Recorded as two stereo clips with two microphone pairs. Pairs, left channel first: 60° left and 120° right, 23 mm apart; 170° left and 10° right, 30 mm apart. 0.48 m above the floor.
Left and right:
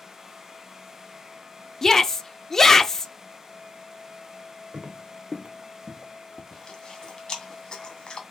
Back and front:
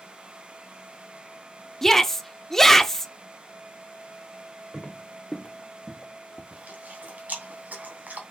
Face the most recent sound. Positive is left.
turn(degrees=10)